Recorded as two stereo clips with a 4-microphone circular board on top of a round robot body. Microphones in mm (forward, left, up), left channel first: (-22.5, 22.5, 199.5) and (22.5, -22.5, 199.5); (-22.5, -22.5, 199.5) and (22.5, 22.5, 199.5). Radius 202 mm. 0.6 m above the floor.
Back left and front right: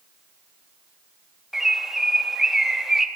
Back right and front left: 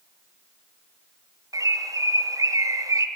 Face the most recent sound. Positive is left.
turn(degrees=40)